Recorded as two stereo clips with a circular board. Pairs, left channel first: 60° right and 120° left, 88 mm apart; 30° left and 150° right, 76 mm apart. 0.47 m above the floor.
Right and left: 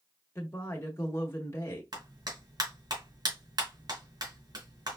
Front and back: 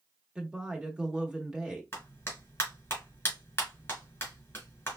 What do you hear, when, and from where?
0.3 s a woman speaking: 80° right, 0.8 m
1.9 s a clap: 90° left, 2.0 m